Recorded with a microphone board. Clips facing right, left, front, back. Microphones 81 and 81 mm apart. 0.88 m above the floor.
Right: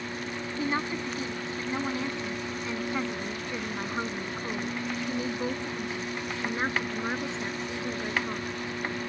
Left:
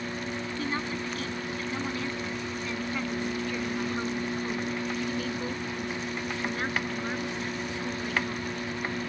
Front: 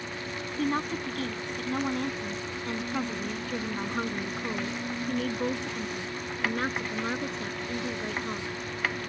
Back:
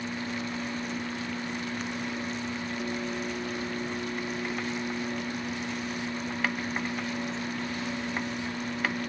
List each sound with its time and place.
0.6 s a woman speaking: 20° right; by 8.5 s 25° right